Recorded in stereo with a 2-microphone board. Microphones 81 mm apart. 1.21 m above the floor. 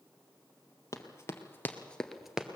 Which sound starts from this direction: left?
Running footsteps, at 0.9 s.